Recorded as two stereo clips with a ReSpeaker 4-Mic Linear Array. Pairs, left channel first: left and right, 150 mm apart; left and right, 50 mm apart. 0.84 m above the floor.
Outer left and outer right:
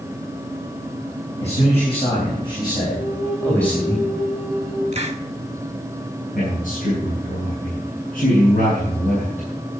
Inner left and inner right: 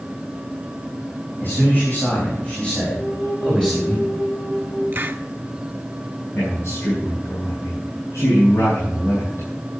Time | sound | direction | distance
1.4 | a man speaking | 45° left (ahead or behind) | 4.5 m
3.0 | a flute | 50° left (ahead or behind) | 3.5 m
4.9 | a hiss | 45° right (ahead or behind) | 1.2 m
6.3 | a man speaking | 70° left (ahead or behind) | 5.5 m